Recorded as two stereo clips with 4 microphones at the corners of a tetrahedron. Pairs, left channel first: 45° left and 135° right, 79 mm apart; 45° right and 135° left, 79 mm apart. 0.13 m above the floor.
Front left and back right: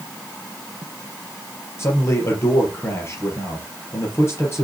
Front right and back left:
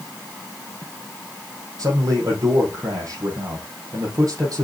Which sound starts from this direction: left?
A man speaking, at 1.8 s.